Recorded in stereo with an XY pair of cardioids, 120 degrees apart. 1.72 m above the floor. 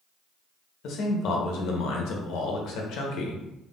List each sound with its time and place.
0.8 s a man speaking: 70° left, 0.7 m